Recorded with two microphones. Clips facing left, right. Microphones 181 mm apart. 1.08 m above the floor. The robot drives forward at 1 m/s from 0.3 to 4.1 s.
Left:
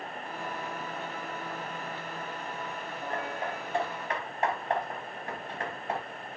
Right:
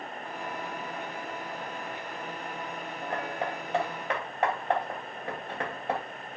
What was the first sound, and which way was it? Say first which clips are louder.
Hammering: right 2 dB; 80° right.